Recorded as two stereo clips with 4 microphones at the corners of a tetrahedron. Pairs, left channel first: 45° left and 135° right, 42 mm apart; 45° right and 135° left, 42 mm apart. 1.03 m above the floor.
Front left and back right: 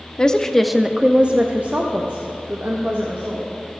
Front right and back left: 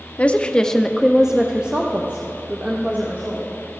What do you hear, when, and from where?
0.2 s a woman speaking: 10° right, 0.6 m; by 3.5 s 175° right, 1.7 m